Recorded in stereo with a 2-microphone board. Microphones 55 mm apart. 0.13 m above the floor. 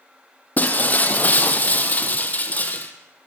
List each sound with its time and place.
0.6 s breaking glass: 30° left (ahead or behind), 1.9 m